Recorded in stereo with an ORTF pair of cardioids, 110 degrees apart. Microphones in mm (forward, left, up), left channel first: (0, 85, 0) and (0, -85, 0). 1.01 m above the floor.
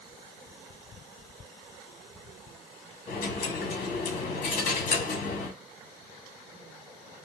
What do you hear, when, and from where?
3.1 s a dropped coin: 55° left, 1.5 m